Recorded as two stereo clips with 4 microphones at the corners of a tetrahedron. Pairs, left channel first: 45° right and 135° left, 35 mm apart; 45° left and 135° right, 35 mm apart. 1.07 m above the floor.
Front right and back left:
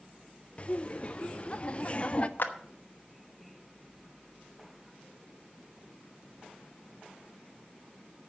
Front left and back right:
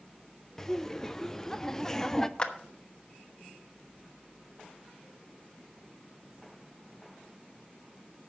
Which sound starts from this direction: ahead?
A clap, at 2.4 s.